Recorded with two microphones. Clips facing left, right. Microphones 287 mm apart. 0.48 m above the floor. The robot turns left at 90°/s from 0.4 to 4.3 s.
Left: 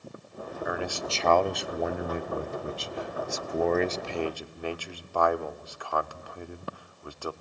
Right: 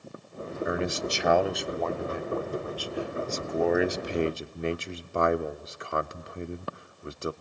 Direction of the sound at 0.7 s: 25° right (ahead or behind).